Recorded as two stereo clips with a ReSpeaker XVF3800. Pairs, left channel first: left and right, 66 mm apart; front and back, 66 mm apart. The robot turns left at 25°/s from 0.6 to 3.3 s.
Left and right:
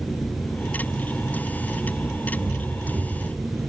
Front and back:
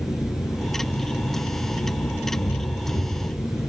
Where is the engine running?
15° left, 5.5 m; by 3.7 s 55° right, 5.5 m.